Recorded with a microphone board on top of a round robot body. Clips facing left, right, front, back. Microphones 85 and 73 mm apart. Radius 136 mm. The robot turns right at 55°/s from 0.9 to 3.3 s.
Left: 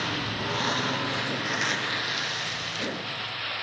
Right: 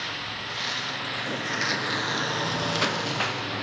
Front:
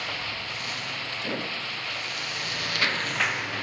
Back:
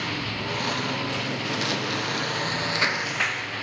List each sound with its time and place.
0.0 s a lawn mower: 145° left; by 3.6 s 85° right